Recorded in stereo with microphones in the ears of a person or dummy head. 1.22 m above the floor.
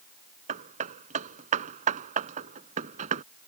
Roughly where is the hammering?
Right.